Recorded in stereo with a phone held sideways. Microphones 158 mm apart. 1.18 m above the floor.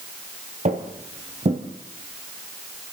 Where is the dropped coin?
No dropped coin in this recording.